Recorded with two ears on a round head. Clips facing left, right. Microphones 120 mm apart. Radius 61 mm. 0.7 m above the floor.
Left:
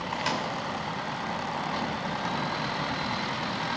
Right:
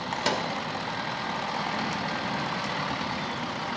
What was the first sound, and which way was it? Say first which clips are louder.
A microwave: right 2 dB; 55° right (ahead or behind).